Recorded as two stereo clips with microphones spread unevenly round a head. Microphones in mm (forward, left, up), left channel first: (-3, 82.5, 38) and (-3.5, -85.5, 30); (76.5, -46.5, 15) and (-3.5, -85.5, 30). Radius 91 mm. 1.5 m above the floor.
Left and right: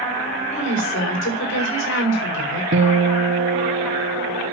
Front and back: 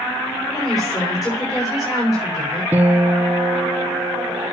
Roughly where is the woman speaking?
Left.